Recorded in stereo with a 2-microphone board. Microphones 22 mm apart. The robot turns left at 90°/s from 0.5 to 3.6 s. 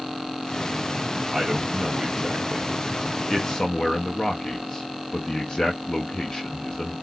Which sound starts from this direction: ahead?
A man speaking, at 1.3 s.